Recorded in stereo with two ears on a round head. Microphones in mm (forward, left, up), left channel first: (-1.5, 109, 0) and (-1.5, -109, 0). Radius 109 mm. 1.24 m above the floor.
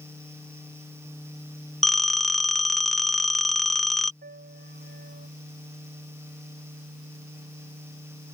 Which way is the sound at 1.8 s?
Centre (ahead or behind).